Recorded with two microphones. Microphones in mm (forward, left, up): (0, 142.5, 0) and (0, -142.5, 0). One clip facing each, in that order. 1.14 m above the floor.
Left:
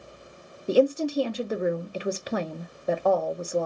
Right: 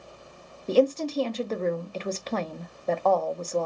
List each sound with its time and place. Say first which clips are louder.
0.7 s a woman speaking: left 1 dB; 10° left (ahead or behind), 0.5 m